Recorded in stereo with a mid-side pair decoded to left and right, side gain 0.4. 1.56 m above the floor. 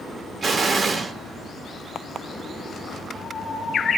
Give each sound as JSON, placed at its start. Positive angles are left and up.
{"t": 0.4, "sound": "an explosion", "azimuth_deg": -50, "distance_m": 1.6}